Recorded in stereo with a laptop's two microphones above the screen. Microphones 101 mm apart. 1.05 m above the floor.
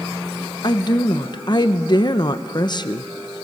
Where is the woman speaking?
45° left (ahead or behind), 0.7 m.